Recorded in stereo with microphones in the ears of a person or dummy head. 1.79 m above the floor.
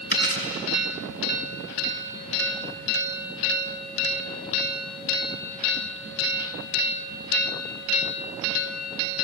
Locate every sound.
0.1 s a dropped coin: 55° left (ahead or behind), 5 m